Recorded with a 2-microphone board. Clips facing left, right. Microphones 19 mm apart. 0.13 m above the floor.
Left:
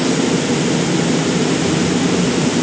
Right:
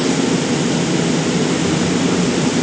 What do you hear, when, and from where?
Only background noise.